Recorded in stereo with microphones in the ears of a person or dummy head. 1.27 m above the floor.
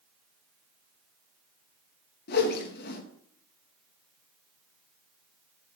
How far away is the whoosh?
About 1.5 m.